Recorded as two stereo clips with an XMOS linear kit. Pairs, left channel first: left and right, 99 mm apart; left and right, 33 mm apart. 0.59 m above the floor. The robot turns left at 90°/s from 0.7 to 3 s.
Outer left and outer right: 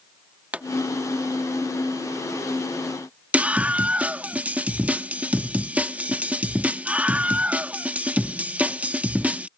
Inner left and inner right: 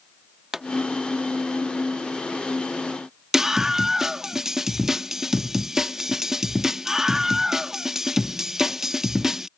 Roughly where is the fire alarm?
No fire alarm in this recording.